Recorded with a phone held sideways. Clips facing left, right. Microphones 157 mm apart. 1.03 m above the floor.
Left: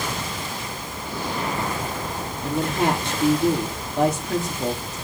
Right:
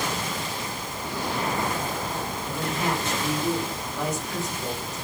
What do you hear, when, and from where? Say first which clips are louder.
2.4 s a woman speaking: left 8 dB; 65° left (ahead or behind), 2.5 m